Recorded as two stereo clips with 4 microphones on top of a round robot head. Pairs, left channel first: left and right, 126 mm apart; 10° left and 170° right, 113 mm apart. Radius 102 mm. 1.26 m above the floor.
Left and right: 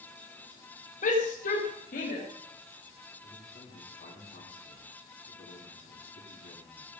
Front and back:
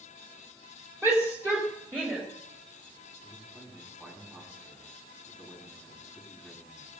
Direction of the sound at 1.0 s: 125° left.